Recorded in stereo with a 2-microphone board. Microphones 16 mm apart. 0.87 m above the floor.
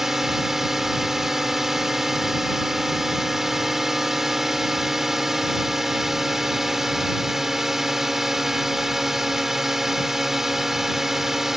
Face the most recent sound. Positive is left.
turn(degrees=-40)  # may be behind; listen again after turning